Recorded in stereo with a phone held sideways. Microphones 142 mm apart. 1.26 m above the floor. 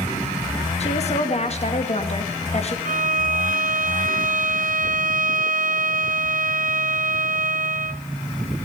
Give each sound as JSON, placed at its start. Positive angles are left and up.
{"t": 0.8, "sound": "a woman speaking", "side_deg": 45, "distance_m": 2.0}
{"t": 2.9, "sound": "a violin", "side_deg": -60, "distance_m": 0.5}